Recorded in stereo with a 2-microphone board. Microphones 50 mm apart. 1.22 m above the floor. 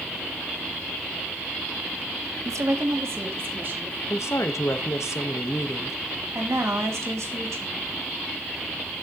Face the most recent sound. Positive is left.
turn(degrees=-85)